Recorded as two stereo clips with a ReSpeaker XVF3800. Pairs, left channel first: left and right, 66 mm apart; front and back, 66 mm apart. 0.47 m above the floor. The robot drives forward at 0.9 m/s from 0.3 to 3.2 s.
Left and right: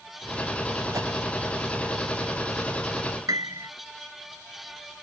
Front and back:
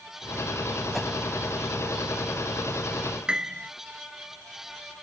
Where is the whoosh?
85° right; by 1.1 s 90° right.